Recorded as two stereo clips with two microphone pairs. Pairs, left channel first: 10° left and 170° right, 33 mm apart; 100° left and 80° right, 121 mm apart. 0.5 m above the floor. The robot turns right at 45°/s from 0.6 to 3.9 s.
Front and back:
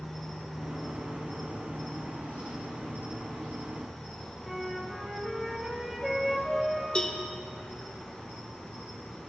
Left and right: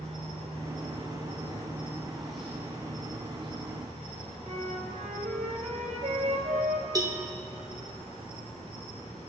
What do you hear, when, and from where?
0.0 s an insect: 65° right, 4.5 m; by 9.3 s 80° left, 4.5 m
4.4 s a flute: 85° right, 1.7 m
7.0 s a cowbell: 45° right, 0.9 m